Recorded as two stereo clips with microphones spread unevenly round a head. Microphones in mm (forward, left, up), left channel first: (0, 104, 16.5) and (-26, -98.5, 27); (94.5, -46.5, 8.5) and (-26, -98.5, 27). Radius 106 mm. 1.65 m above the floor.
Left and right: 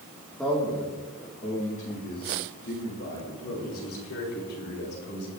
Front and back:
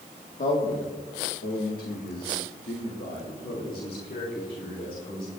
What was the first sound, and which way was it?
A man speaking, 5° right.